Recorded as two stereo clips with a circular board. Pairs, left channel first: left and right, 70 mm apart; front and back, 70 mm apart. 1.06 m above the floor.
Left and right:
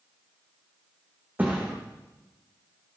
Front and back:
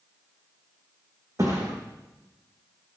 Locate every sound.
1.4 s a thud: 150° right, 3 m